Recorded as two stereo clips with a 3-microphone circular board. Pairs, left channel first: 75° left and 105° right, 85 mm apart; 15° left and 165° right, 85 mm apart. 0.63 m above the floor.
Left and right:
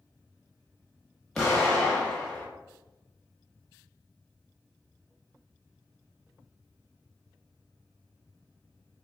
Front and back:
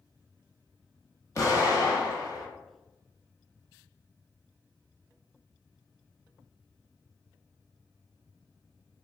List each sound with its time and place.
1.4 s an explosion: 5° right, 1.1 m